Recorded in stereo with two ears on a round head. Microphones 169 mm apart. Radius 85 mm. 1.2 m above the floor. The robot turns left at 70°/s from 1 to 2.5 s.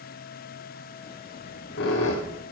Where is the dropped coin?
No dropped coin in this recording.